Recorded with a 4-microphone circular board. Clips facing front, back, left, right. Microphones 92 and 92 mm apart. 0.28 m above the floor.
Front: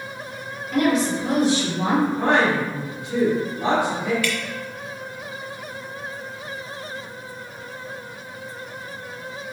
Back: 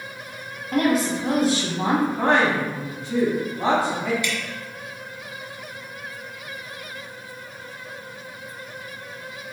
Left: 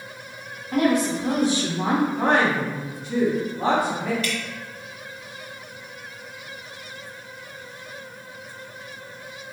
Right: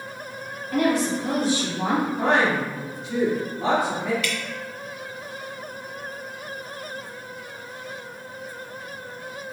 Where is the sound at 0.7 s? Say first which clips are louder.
Front 1 dB, left 1 dB; 155° left, 1.9 m.